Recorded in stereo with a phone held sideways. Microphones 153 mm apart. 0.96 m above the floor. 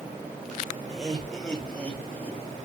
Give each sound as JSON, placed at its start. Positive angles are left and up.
{"t": 0.9, "sound": "laughter", "side_deg": 0, "distance_m": 3.0}